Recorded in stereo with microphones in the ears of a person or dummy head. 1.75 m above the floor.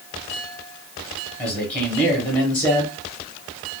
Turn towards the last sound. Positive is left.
turn(degrees=25)  # may be behind; listen again after turning